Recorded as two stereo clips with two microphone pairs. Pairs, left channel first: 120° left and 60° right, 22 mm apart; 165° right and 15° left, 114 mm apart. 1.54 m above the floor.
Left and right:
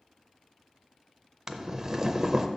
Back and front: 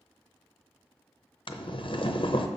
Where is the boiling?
135° right, 0.6 m.